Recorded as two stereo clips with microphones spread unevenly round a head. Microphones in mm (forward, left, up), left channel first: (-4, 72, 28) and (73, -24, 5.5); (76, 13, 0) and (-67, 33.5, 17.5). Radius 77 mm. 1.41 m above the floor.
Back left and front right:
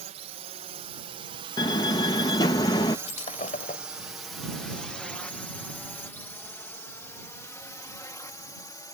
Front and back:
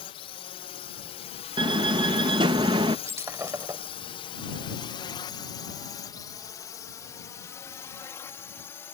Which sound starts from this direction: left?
Breaking glass, at 3.1 s.